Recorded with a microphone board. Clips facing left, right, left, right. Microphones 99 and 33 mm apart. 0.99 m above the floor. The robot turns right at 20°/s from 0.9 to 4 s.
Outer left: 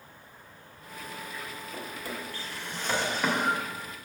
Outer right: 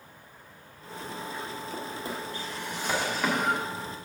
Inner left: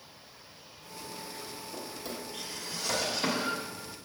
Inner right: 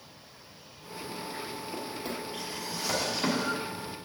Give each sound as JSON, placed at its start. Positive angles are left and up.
{"t": 1.7, "sound": "a drawer", "side_deg": -30, "distance_m": 1.4}